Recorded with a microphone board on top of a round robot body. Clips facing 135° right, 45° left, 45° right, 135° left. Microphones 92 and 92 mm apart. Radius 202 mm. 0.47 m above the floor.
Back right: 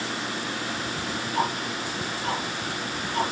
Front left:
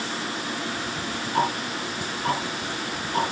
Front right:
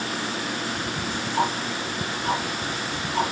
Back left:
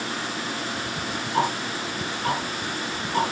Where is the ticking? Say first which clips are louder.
Front left 3 dB, back left 1 dB; 90° left, 3 m.